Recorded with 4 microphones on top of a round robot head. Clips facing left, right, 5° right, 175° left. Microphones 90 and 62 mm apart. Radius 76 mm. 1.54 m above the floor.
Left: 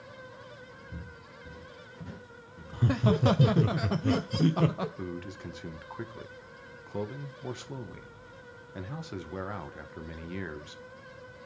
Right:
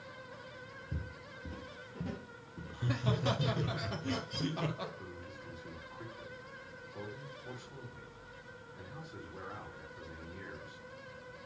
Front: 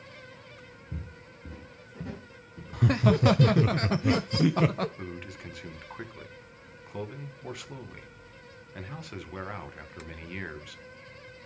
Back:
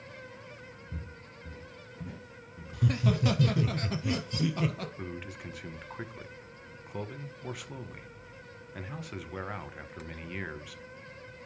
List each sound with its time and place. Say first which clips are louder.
0.9 s footsteps: even, front 1 dB; 45° right, 2.5 m; by 3.7 s 25° right, 1.5 m
2.7 s laughter: left 9 dB, front 6 dB; 40° left, 0.7 m
5.0 s a man speaking: left 9 dB, even; 90° left, 1.5 m